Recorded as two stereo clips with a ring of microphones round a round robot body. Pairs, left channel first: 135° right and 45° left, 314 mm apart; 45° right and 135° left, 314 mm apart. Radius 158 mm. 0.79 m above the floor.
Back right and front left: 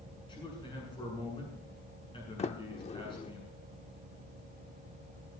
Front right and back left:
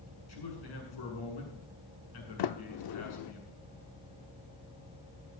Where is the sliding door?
65° right, 0.6 m.